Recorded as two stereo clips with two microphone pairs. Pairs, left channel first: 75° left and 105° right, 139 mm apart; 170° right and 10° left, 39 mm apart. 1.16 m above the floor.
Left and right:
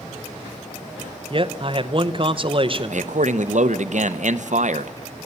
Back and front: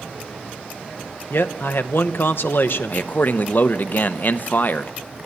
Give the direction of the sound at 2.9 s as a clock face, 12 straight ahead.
4 o'clock.